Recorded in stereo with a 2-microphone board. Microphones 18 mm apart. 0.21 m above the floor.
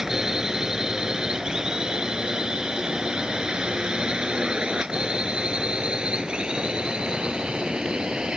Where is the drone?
35° right (ahead or behind); by 8.4 s 65° right (ahead or behind).